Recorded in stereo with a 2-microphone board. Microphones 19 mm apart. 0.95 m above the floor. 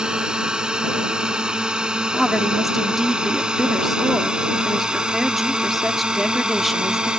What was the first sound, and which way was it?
A drone, 50° right (ahead or behind).